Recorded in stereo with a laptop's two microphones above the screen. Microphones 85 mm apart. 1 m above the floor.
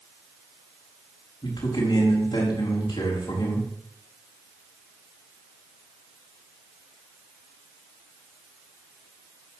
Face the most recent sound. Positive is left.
turn(degrees=75)  # may be behind; listen again after turning